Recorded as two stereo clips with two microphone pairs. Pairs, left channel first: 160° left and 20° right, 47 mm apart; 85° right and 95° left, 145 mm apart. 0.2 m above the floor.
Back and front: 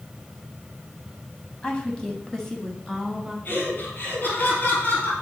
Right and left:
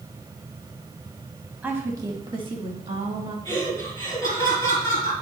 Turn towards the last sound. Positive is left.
turn(degrees=-155)